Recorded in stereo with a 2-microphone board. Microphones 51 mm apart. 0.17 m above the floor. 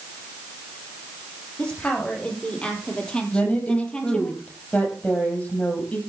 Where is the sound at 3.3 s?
30° left (ahead or behind), 6.5 m.